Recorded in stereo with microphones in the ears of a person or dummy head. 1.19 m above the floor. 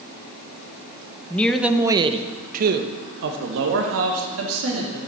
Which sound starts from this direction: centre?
A man speaking, at 1.3 s.